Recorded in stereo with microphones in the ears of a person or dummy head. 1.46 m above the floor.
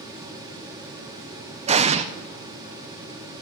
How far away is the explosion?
About 0.6 m.